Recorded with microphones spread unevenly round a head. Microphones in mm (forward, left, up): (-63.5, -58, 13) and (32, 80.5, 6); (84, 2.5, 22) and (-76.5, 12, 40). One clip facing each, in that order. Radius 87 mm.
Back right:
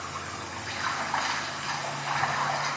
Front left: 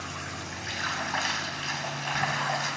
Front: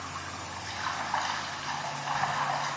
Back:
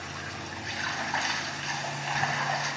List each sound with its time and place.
0.0 s running water: 115° left, 2 m